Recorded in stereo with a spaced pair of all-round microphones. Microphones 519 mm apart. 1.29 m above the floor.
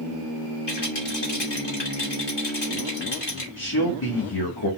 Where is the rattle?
50° left (ahead or behind), 2.5 m.